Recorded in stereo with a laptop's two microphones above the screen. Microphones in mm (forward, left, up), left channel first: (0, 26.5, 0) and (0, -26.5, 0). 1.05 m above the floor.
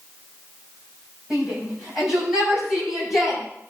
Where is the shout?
10° right (ahead or behind), 7.5 m; by 3.4 s 5° right (ahead or behind), 9 m.